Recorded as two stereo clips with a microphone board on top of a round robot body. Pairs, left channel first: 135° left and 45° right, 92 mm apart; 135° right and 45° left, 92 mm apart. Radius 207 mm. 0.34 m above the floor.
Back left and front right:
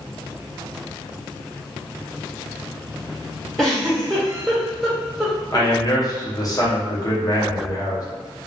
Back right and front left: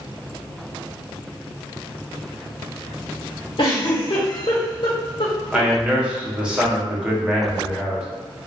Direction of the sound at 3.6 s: 140° right.